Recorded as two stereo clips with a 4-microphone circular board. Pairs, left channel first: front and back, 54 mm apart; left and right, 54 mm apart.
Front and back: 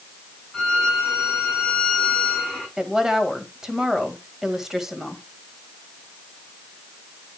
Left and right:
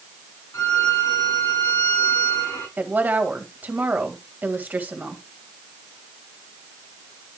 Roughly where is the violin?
Left.